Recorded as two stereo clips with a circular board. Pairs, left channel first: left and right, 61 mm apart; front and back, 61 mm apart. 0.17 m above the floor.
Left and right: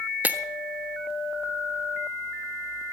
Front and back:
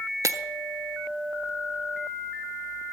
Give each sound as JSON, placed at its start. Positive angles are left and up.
{"t": 0.2, "sound": "breaking glass", "azimuth_deg": -155, "distance_m": 0.7}